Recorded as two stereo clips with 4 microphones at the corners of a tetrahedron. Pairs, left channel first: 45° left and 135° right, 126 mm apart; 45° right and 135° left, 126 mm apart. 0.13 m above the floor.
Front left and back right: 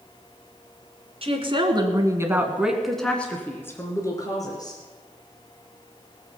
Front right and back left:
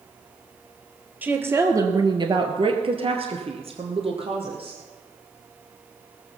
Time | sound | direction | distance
1.2 | a woman speaking | 155° right | 1.8 m